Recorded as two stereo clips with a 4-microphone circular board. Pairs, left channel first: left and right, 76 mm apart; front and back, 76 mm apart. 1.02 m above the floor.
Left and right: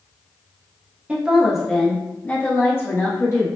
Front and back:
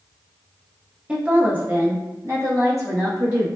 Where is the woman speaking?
125° right, 0.6 m; by 3.5 s 140° left, 1.3 m.